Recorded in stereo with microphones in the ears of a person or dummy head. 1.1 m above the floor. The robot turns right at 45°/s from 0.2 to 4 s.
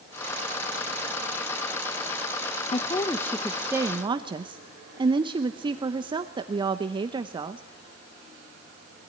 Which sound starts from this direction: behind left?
A woman speaking, at 2.7 s.